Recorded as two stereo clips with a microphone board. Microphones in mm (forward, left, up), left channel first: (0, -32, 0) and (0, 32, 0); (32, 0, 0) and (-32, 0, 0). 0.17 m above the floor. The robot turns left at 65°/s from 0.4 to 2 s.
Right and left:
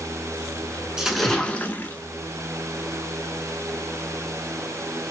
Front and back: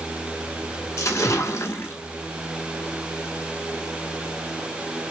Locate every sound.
1.0 s a splash: 15° left, 0.7 m; by 1.9 s 50° right, 0.7 m